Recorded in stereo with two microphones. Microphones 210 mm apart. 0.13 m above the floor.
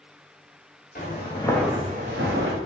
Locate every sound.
0.9 s footsteps: 45° left (ahead or behind), 1.4 m; by 2.6 s 80° right, 1.4 m